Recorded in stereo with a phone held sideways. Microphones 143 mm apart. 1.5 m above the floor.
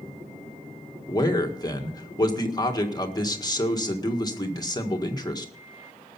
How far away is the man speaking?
About 1.7 m.